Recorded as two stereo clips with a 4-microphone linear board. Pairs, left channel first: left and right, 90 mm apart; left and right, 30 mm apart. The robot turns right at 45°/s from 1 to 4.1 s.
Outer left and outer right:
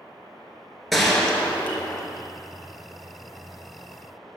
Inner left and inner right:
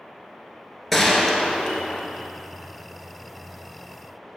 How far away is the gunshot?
About 1.0 m.